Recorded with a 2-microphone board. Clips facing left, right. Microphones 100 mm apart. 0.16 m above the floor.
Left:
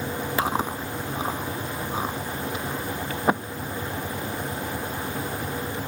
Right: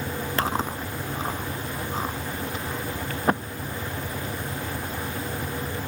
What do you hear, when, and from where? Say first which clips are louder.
0.4 s chewing: left 1 dB; 5° left (ahead or behind)